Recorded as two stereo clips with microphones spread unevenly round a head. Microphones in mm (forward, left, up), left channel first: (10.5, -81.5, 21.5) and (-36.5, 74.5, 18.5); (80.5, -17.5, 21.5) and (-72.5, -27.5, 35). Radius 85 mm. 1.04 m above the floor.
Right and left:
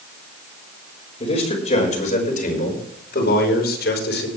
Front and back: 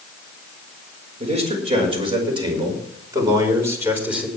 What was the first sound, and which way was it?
A man speaking, 130° right.